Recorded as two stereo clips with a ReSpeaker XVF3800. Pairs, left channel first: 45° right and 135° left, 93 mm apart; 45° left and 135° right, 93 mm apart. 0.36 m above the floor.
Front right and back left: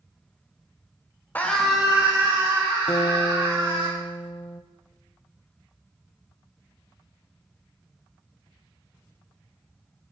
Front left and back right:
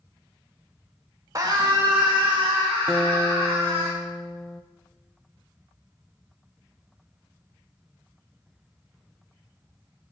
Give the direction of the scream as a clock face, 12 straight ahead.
4 o'clock.